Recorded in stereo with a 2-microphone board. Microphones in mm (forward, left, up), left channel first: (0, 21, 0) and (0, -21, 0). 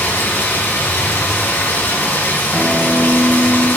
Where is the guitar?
10° right (ahead or behind), 3.5 m.